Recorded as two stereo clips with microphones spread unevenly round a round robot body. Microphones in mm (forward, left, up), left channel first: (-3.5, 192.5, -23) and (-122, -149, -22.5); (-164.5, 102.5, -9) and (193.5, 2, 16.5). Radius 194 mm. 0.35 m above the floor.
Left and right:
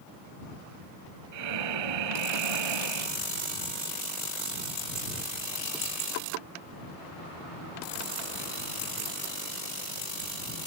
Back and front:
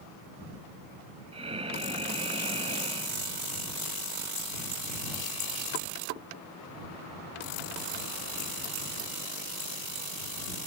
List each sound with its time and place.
1.3 s breathing: 90° right